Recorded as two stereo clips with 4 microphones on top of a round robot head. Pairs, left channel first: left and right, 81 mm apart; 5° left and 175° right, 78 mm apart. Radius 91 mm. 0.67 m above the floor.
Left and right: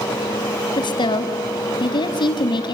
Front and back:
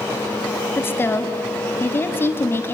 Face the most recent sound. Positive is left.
turn(degrees=65)